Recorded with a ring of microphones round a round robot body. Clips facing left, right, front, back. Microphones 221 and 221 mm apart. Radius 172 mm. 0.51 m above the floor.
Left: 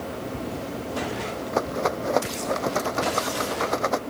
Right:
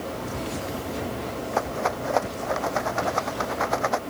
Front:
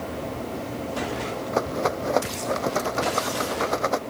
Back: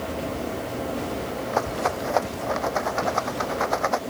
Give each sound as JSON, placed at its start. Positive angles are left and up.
{"t": 1.5, "sound": "a rattle", "azimuth_deg": 45}